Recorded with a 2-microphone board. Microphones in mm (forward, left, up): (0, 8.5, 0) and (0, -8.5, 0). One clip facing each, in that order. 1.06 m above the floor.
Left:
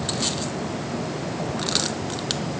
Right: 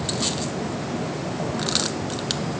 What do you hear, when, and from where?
Only background noise.